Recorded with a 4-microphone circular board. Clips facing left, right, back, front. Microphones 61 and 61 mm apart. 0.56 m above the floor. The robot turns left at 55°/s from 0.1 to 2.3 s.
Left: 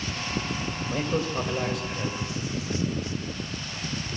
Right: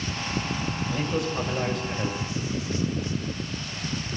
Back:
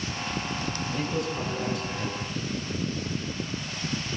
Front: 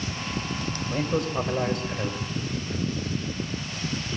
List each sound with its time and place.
0.9 s a man speaking: 55° left, 2 m; by 2.3 s 20° right, 2 m